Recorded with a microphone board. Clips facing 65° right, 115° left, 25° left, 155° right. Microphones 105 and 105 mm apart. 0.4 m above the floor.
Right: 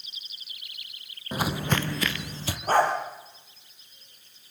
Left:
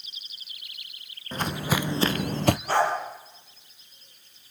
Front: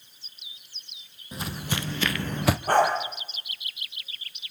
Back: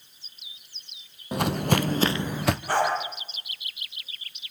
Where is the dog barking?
20° right, 4.5 m.